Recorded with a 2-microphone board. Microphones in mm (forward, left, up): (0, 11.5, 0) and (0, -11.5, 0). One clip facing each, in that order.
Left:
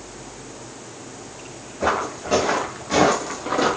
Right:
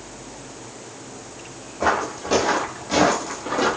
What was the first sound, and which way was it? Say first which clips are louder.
Footsteps: right 1 dB; 30° right (ahead or behind).